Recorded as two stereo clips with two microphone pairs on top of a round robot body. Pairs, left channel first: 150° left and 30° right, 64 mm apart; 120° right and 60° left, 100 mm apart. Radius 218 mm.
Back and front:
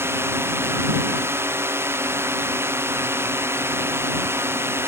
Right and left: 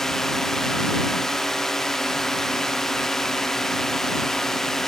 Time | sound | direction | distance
0.0 | a drone | 40° right | ?